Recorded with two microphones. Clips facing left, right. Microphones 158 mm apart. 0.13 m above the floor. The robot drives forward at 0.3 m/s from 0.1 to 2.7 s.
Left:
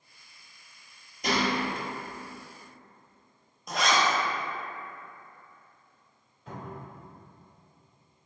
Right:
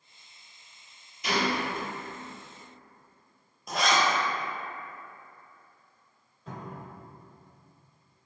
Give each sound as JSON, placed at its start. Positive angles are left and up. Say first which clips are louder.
{"t": 1.2, "sound": "a gunshot", "louder": "left 1 dB", "side_deg": 50, "distance_m": 0.6}
{"t": 3.7, "sound": "a zipper", "louder": "even", "side_deg": 0, "distance_m": 0.6}
{"t": 6.5, "sound": "a cupboard door", "louder": "even", "side_deg": -5, "distance_m": 1.6}